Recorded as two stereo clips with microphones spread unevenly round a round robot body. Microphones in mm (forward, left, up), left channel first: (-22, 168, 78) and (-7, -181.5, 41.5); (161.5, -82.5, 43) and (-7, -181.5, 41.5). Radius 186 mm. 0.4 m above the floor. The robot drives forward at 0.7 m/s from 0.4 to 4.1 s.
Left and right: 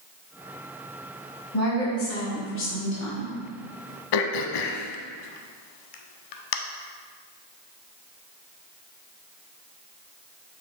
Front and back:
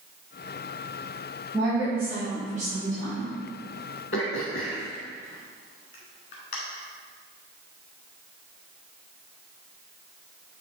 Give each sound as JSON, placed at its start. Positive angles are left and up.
{"t": 1.5, "sound": "a woman speaking", "azimuth_deg": 135, "distance_m": 1.8}
{"t": 4.1, "sound": "throat clearing", "azimuth_deg": 75, "distance_m": 0.5}